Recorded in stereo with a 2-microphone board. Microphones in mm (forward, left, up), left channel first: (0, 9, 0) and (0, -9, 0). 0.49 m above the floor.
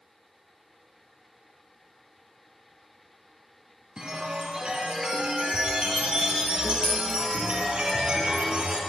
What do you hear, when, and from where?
4.0 s a chime: 65° right (ahead or behind), 5 m